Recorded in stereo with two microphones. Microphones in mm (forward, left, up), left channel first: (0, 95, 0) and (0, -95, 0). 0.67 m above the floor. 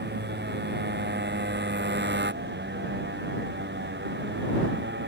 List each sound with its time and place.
0.0 s a motorcycle: 70° right (ahead or behind); by 5.1 s 75° right (ahead or behind)